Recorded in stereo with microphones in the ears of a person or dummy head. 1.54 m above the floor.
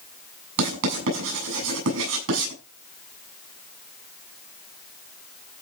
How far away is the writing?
About 8 m.